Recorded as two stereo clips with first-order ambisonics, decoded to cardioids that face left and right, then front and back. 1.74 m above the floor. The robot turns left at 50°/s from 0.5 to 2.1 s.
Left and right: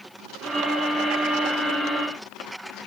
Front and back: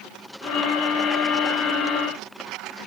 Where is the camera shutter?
I don't hear a camera shutter.